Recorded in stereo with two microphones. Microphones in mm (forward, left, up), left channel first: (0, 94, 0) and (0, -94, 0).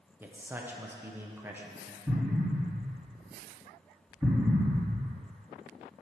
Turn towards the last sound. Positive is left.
turn(degrees=0)  # may be behind; listen again after turning